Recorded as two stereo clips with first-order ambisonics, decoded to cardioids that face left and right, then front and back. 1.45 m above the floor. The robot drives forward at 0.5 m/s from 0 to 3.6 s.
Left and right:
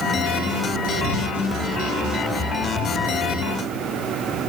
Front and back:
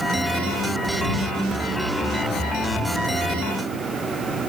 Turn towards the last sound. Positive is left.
No sound to turn to.